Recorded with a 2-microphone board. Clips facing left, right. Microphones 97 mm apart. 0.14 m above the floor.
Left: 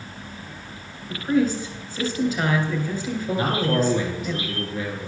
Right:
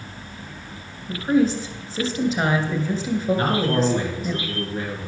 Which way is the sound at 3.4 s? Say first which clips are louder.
Right 1 dB; 40° right (ahead or behind).